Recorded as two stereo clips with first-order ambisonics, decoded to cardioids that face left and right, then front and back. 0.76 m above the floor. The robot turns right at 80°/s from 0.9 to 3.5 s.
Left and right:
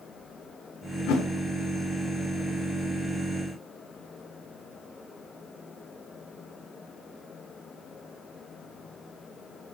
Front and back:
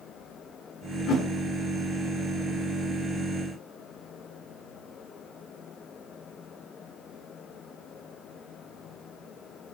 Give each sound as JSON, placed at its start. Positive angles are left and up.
{"t": 1.1, "sound": "a whoosh", "azimuth_deg": 55, "distance_m": 1.2}